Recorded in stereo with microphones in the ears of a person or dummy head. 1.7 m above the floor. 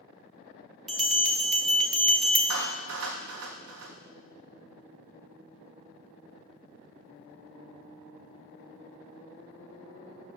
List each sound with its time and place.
0.9 s a bell: centre (ahead or behind), 0.7 m
2.5 s a clap: 70° right (ahead or behind), 0.8 m